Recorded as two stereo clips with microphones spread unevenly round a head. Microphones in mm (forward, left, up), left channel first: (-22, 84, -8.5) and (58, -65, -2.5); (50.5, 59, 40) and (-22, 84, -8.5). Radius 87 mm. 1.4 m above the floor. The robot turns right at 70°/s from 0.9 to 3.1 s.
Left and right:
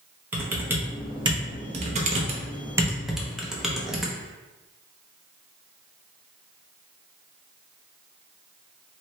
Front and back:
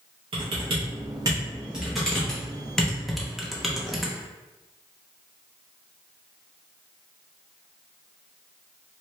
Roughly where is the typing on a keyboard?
Behind right.